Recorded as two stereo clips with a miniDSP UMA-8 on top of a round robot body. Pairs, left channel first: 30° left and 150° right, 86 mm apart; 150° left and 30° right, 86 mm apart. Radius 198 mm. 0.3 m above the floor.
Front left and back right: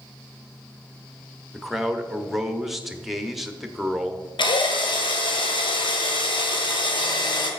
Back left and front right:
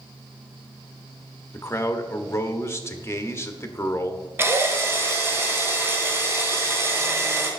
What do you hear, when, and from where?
1.5 s a man speaking: 125° left, 1.3 m
4.4 s a drill: 30° left, 1.7 m